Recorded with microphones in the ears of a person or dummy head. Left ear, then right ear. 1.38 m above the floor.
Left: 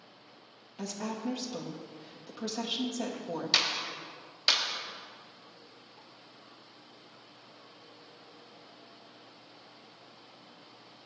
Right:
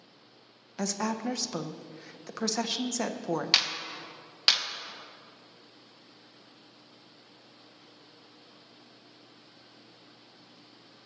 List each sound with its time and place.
0.8 s a woman speaking: 55° right (ahead or behind), 0.7 m
3.5 s a clap: 40° right (ahead or behind), 1.1 m